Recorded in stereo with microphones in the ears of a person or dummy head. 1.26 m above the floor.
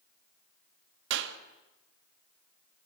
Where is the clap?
70° right (ahead or behind), 1.7 m.